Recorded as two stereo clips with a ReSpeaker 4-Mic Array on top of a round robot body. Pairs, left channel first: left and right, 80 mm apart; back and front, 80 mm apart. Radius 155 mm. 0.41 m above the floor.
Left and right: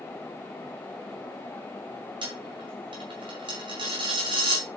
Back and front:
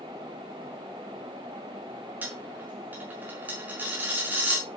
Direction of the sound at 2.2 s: 70° right.